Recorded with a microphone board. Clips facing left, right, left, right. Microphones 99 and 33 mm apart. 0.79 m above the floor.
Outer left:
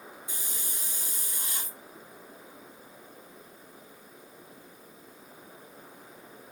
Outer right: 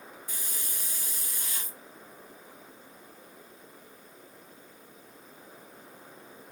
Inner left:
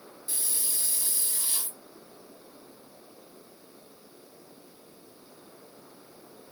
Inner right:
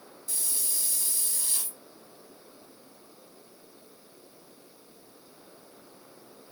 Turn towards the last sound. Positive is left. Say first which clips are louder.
# outer left 1 dB, even
turn(degrees=25)  # may be behind; listen again after turning